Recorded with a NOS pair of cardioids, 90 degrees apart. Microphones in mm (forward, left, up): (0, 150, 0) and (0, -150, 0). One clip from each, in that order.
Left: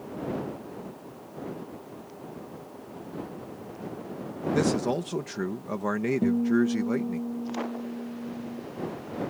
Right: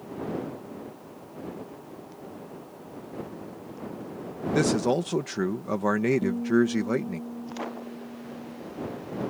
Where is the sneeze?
No sneeze in this recording.